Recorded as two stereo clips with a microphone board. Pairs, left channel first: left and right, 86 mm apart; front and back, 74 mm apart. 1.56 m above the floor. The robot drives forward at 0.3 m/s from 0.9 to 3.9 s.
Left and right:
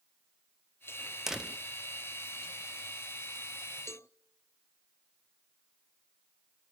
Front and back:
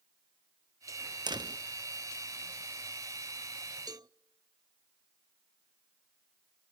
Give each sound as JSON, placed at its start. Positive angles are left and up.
{"t": 1.3, "sound": "a door slam", "azimuth_deg": -175, "distance_m": 0.9}
{"t": 3.9, "sound": "a cowbell", "azimuth_deg": 150, "distance_m": 0.6}